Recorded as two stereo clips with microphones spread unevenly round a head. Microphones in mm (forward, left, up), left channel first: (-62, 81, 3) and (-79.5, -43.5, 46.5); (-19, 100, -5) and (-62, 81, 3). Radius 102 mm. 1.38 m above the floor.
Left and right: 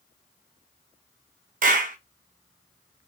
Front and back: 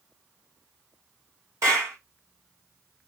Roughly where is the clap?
Right.